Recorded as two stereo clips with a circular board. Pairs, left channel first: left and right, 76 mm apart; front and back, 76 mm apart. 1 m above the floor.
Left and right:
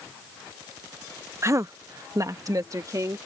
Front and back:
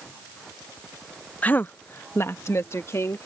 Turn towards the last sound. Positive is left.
turn(degrees=-50)